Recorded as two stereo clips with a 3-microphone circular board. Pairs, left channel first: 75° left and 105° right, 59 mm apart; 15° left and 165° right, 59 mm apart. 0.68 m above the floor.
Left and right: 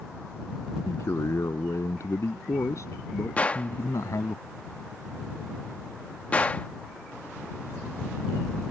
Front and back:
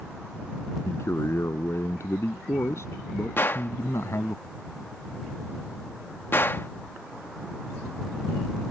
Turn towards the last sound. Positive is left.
turn(degrees=25)